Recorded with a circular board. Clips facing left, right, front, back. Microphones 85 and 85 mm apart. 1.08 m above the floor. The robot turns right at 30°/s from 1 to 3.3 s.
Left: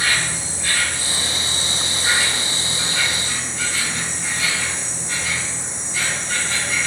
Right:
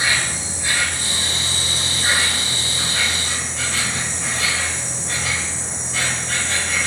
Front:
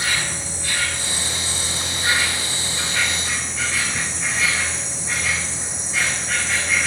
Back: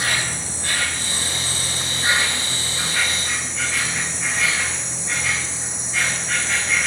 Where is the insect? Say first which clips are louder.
Even, back 1 dB; 160° right, 3 m; by 6.9 s 90° right, 3 m.